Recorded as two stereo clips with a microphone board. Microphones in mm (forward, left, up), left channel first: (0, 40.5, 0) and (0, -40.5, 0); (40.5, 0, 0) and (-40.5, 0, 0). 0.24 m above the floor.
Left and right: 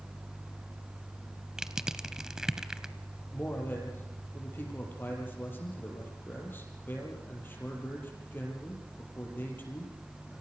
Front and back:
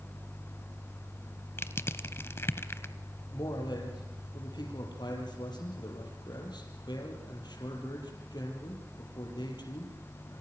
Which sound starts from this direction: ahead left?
A man speaking, at 3.3 s.